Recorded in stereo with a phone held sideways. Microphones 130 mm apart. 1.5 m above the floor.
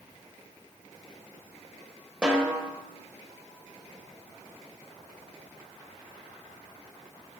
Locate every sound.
2.2 s a snare drum: 5° right (ahead or behind), 1.5 m